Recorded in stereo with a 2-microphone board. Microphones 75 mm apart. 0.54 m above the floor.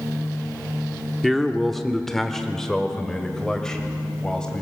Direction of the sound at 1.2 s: Centre (ahead or behind).